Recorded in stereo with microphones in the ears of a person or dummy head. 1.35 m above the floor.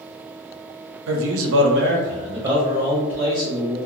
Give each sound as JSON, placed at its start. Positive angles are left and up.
{"t": 1.1, "sound": "a man speaking", "side_deg": -70, "distance_m": 0.6}